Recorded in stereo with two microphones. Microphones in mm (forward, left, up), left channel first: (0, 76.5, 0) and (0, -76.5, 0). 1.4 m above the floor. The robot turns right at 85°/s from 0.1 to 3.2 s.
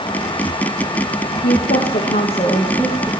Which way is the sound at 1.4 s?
60° left.